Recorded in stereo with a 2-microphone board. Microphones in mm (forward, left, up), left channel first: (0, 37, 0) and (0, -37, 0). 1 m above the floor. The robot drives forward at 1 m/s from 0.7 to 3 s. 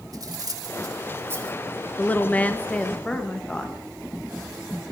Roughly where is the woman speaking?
Centre.